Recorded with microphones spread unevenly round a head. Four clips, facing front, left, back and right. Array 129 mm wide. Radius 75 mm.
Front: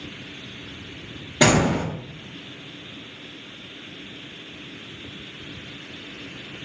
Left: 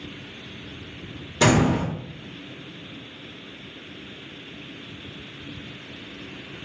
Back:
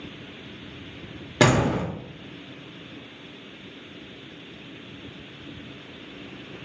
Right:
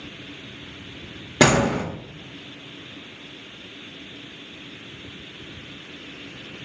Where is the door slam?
115° right, 1.3 m.